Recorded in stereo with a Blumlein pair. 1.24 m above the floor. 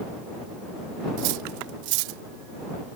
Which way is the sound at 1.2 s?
45° right.